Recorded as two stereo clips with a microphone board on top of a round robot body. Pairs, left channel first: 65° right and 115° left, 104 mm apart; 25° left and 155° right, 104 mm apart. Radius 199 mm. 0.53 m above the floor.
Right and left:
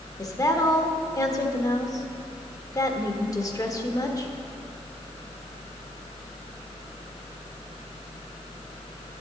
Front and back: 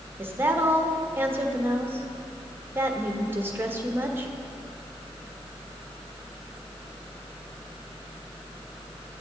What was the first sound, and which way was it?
A woman speaking, 100° right.